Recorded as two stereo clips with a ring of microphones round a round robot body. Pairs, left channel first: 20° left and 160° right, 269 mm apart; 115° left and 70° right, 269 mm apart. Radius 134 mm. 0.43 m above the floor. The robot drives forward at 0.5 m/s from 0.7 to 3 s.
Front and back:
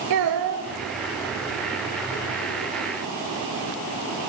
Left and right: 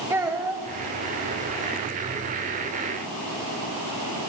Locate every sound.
0.1 s a child speaking: 150° right, 1.0 m